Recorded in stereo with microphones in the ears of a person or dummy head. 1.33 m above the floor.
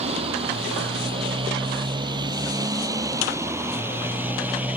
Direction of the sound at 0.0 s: 35° right (ahead or behind).